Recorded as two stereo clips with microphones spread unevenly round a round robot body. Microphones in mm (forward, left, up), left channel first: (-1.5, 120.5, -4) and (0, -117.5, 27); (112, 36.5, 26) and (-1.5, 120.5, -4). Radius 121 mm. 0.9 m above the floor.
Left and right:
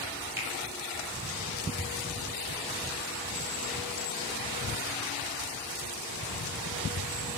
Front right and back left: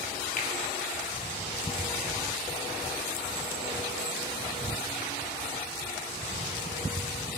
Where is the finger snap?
10° right, 1.5 m.